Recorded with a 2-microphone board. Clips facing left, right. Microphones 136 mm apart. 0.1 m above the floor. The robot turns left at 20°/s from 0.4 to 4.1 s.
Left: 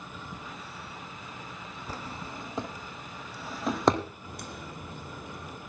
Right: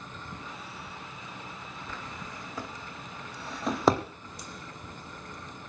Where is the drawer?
35° left (ahead or behind), 1.9 m; by 4.0 s 5° right (ahead or behind), 1.9 m.